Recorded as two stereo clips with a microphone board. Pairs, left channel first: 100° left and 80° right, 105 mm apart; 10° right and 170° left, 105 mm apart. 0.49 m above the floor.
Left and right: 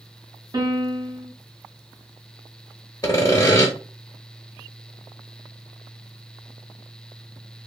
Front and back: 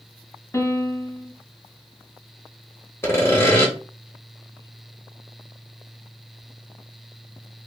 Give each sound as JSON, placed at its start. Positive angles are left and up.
{"t": 0.5, "sound": "a piano", "azimuth_deg": -65, "distance_m": 0.6}
{"t": 3.0, "sound": "sawing", "azimuth_deg": 50, "distance_m": 0.8}